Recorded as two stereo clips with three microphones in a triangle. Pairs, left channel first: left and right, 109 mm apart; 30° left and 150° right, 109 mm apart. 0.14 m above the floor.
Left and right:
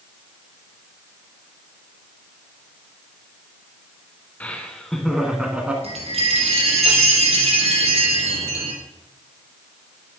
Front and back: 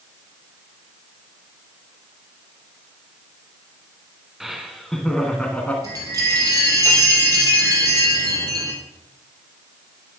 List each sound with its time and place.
4.4 s laughter: 130° left, 1.4 m; by 5.7 s 30° right, 1.5 m
5.8 s a chime: 95° right, 3 m